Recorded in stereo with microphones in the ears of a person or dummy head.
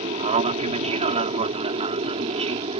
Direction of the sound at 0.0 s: 30° right (ahead or behind).